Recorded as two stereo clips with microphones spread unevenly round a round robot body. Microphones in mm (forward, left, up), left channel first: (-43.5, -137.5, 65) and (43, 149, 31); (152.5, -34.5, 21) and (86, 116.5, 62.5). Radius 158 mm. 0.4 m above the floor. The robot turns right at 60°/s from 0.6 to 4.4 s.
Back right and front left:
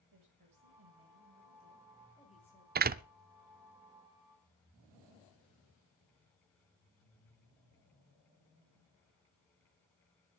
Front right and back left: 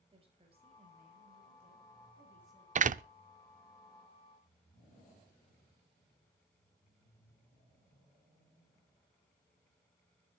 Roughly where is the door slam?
Left.